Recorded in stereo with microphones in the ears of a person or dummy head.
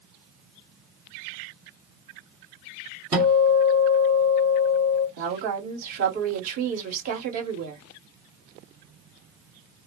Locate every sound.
3.1 s a guitar: 15° right (ahead or behind), 1.7 m
5.2 s a woman speaking: 50° right (ahead or behind), 1.6 m